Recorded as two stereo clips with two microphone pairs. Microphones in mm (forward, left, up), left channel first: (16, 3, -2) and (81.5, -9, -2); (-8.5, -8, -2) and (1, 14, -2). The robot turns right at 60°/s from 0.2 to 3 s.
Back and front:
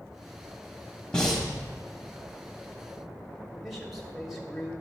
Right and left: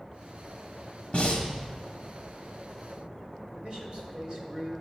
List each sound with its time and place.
1.1 s breathing: 115° right, 1.4 m; by 1.5 s 90° right, 1.4 m
3.5 s a man speaking: 75° left, 1.8 m